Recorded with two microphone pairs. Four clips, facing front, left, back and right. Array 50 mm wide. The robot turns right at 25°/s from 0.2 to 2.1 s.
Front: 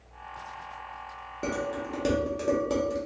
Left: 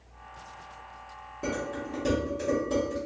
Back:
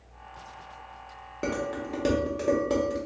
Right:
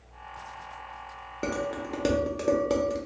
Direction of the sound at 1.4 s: 130° right.